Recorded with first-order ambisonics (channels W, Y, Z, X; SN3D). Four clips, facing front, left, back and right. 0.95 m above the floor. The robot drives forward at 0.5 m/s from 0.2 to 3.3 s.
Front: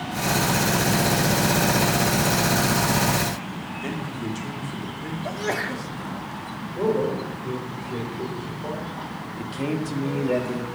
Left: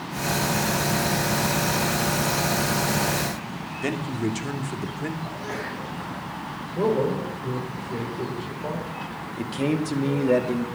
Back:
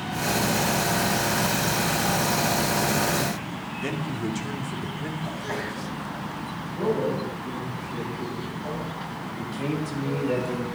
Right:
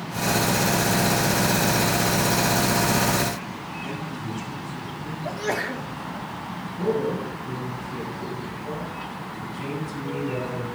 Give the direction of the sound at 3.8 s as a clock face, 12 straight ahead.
9 o'clock.